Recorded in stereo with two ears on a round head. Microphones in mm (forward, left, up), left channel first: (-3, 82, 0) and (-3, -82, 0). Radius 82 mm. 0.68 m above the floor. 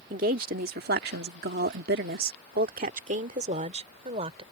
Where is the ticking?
No ticking in this recording.